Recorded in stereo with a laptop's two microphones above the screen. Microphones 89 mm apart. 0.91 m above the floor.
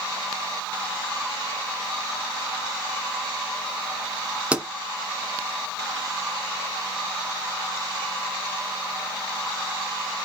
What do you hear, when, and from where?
4.5 s a pop: 15° right (ahead or behind), 1.7 m